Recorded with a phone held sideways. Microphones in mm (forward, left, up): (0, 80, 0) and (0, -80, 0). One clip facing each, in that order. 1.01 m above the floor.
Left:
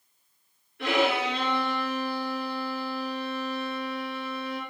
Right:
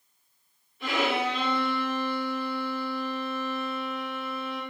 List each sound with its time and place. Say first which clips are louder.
0.8 s a violin: left 2 dB; 75° left (ahead or behind), 3.5 m